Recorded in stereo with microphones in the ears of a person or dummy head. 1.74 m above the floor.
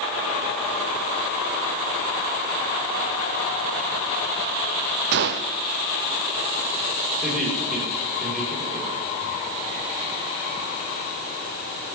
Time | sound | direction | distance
5.1 | a gunshot | 60° right (ahead or behind) | 0.6 m
7.2 | laughter | 5° left (ahead or behind) | 6 m